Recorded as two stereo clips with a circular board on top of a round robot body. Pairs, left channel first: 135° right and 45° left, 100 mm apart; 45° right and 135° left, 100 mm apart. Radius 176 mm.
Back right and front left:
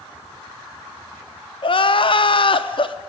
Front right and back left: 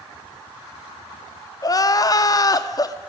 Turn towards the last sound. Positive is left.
turn(degrees=-100)